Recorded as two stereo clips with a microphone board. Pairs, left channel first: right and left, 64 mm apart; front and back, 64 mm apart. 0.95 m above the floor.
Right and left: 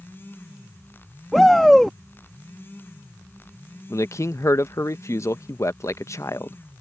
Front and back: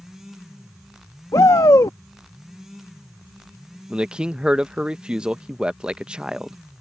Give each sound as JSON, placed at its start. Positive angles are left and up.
{"t": 1.3, "sound": "a shout", "azimuth_deg": -5}
{"t": 3.9, "sound": "a man speaking", "azimuth_deg": -110}